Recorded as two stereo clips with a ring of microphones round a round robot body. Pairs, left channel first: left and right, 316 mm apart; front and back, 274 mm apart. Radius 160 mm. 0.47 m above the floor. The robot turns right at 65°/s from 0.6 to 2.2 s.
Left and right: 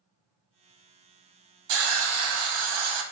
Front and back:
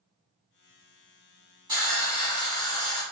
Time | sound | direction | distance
1.7 | a hiss | 105° right | 0.6 m